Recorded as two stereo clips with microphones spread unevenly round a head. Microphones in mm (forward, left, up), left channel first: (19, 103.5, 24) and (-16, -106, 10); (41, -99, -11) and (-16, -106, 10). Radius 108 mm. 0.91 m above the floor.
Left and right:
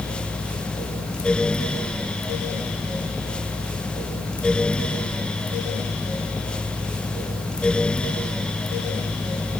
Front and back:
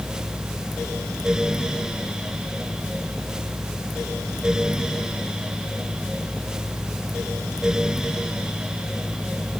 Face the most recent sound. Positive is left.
No sound to turn to.